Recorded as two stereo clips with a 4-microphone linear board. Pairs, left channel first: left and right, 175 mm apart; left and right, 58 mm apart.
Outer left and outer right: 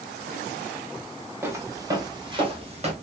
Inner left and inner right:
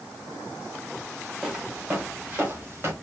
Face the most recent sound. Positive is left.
turn(degrees=-40)  # may be behind; listen again after turning